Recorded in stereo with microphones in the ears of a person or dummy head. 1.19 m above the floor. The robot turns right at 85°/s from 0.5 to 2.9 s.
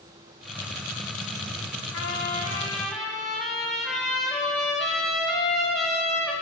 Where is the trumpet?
95° left, 1.5 m; by 6.3 s 175° left, 1.5 m.